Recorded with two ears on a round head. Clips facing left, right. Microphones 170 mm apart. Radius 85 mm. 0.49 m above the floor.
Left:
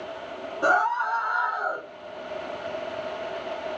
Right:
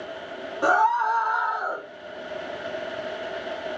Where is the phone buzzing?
I don't hear a phone buzzing.